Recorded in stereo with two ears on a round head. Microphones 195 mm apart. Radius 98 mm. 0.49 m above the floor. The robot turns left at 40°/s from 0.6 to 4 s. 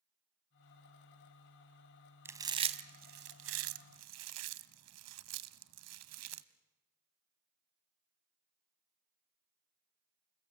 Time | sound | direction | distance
2.2 | chewing | 10° right (ahead or behind) | 0.9 m